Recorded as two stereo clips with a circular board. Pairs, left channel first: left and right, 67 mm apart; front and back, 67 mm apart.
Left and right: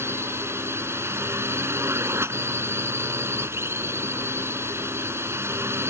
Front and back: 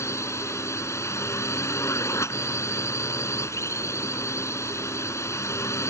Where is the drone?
40° right.